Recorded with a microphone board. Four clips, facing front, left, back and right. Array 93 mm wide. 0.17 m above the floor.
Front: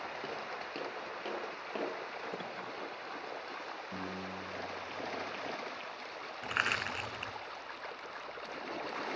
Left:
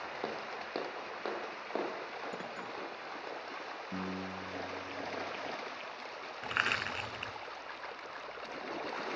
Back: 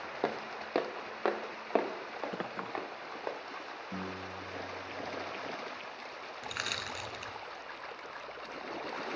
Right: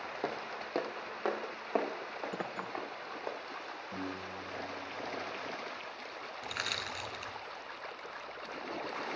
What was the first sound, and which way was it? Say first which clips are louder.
Footsteps: right 3 dB, back 5 dB; 175° right.